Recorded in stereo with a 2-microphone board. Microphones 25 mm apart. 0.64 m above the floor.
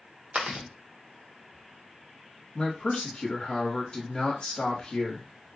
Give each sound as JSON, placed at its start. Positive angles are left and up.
{"t": 0.3, "sound": "chewing", "side_deg": -55, "distance_m": 1.0}
{"t": 2.5, "sound": "a man speaking", "side_deg": 25, "distance_m": 1.2}